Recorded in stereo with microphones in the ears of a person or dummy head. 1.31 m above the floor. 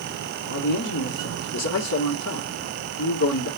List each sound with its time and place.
0.5 s a man speaking: 75° left (ahead or behind), 1.7 m